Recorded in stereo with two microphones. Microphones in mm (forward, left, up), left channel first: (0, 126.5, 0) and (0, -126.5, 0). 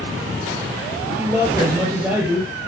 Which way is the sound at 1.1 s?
10° right (ahead or behind).